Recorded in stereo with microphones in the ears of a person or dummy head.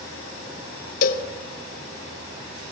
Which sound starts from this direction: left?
A cowbell, at 1.0 s.